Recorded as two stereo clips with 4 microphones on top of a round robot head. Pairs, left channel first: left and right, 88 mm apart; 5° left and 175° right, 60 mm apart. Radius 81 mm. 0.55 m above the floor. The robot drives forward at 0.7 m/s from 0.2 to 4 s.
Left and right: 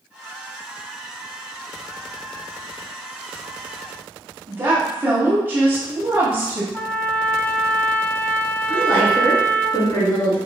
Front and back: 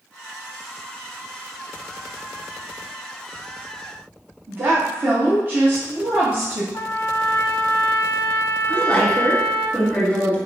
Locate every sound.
4.5 s a woman speaking: 140° right, 0.8 m
6.7 s a trumpet: 30° left, 0.7 m
8.7 s a woman speaking: 50° left, 1.3 m